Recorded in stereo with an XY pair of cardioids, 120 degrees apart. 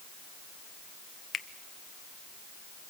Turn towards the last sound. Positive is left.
turn(degrees=30)